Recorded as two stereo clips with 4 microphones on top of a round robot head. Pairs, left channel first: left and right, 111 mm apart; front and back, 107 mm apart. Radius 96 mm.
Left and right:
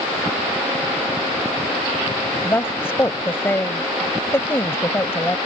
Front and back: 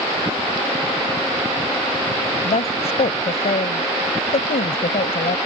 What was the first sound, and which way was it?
A woman speaking, 20° left.